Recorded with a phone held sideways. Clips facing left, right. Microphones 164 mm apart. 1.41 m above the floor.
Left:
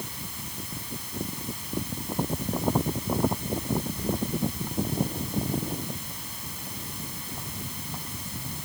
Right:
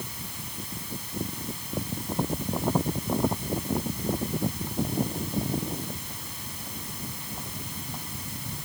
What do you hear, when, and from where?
Only background noise.